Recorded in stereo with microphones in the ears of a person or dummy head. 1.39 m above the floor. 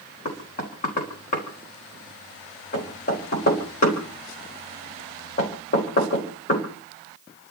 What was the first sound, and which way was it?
Knocking, 35° left (ahead or behind).